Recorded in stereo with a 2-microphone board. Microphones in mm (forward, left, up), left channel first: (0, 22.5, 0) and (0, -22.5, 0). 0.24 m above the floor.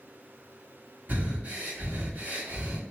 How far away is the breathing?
About 1.9 m.